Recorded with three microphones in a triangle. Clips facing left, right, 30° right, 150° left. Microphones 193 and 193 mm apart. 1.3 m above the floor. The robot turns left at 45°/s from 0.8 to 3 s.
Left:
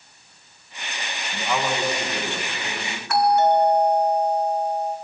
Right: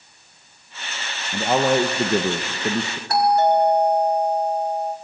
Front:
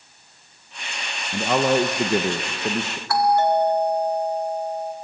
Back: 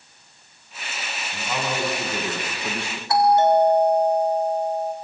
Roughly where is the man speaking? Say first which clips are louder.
Right 7 dB, front 9 dB; ahead right.